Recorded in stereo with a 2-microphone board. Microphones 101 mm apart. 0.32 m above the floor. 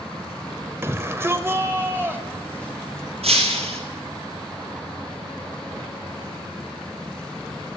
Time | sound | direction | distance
0.8 | a shout | 25° right (ahead or behind) | 1.0 m
3.2 | breaking glass | 80° right | 4.5 m